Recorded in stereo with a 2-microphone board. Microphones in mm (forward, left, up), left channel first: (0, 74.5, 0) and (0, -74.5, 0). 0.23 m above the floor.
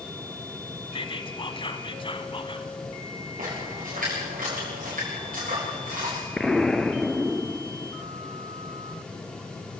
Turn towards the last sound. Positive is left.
turn(degrees=0)  # may be behind; listen again after turning